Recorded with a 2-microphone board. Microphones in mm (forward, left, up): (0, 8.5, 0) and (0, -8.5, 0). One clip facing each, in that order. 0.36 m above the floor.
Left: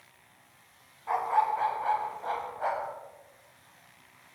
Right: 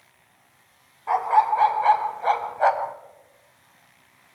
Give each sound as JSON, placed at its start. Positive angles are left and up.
{"t": 1.1, "sound": "a dog barking", "side_deg": -35, "distance_m": 1.0}